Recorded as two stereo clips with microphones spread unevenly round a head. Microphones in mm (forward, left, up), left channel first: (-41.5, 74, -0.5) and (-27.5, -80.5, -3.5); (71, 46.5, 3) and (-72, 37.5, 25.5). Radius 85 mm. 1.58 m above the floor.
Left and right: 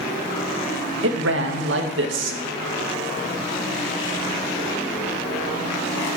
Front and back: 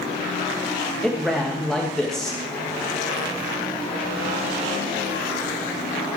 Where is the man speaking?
85° right, 2 m.